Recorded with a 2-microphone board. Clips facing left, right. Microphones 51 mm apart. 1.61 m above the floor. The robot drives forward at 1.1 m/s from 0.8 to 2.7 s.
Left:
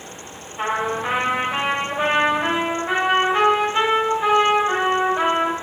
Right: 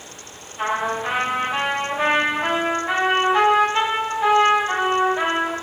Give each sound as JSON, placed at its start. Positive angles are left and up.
{"t": 0.6, "sound": "a trumpet", "side_deg": 25, "distance_m": 2.0}